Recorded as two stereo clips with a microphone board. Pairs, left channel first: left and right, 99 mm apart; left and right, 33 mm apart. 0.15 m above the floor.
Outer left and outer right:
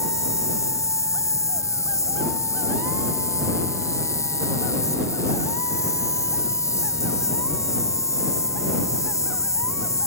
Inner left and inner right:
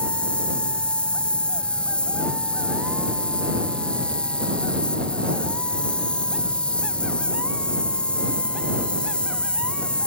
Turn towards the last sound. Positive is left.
turn(degrees=30)  # may be behind; listen again after turning